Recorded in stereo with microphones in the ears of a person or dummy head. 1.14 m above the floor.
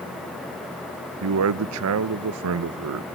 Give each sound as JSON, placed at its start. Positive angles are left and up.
{"t": 1.2, "sound": "a man speaking", "side_deg": -85, "distance_m": 0.6}